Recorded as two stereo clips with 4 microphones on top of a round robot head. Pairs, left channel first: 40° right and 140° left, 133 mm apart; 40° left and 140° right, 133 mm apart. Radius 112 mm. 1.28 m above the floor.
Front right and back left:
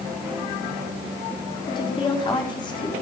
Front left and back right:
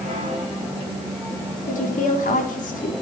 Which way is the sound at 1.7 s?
15° left.